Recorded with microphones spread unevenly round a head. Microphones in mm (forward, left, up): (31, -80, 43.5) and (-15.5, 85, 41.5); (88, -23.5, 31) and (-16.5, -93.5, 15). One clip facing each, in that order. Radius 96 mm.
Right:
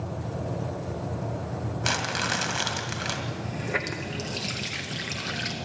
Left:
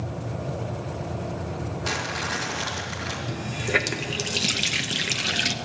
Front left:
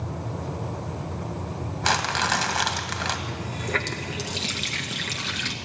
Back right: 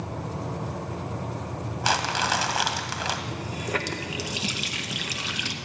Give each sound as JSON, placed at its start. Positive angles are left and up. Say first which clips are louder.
{"t": 1.8, "sound": "crumpling", "louder": "even, front left 1 dB", "azimuth_deg": -60, "distance_m": 2.0}
{"t": 3.3, "sound": "a running tap", "louder": "left 7 dB, even", "azimuth_deg": 125, "distance_m": 0.6}